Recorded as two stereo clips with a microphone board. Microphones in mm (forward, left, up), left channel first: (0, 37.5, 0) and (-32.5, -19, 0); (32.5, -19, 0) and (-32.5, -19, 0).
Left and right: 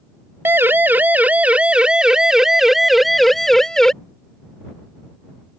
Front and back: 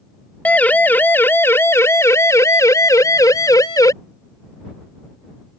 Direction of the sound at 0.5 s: 65° right.